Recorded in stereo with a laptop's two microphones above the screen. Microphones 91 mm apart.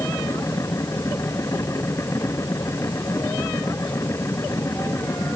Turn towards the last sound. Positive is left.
turn(degrees=30)  # may be behind; listen again after turning